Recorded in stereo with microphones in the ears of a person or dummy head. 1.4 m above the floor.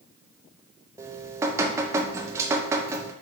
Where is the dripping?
15° right (ahead or behind), 0.5 m.